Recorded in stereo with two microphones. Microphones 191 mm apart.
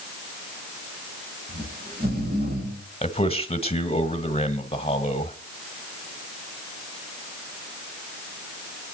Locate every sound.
1.5 s snoring: 55° right (ahead or behind), 7 m
3.0 s a man speaking: 30° left (ahead or behind), 1.2 m